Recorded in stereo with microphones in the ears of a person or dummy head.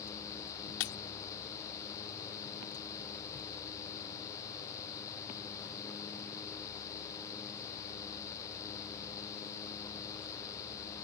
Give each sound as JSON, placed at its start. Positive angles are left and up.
{"t": 0.8, "sound": "breaking glass", "side_deg": 75}